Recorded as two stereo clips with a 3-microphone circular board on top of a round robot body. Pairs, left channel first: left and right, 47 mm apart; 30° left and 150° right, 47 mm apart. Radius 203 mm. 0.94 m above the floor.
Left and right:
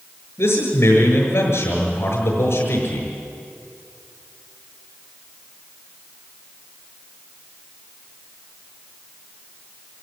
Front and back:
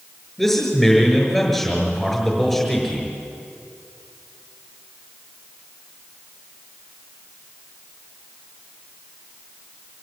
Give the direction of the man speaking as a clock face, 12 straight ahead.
8 o'clock.